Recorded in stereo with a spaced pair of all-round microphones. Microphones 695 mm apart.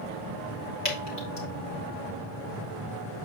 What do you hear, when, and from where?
0.8 s dripping: 75° left (ahead or behind), 3 m